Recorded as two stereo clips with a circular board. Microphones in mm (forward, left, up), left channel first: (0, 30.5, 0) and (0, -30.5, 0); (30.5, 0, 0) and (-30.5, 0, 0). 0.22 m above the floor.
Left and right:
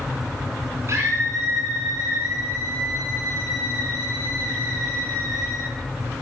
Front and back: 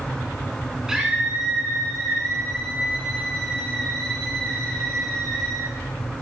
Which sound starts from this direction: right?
A scream, at 0.9 s.